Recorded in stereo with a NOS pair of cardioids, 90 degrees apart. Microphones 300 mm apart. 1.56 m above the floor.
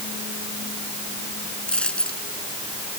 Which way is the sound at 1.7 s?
5° left.